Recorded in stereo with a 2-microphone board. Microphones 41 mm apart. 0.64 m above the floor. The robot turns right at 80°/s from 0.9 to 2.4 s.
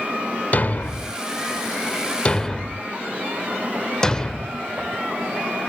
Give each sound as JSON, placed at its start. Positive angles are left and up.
{"t": 0.5, "sound": "a thud", "side_deg": 40, "distance_m": 0.6}